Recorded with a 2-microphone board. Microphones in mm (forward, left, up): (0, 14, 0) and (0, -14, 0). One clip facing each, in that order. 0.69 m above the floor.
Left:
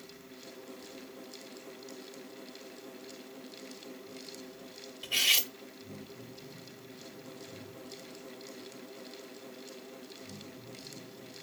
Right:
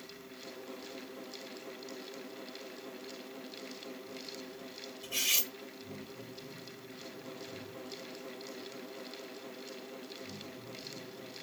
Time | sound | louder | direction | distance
5.0 | cutlery clinking | left 6 dB | 55° left (ahead or behind) | 0.6 m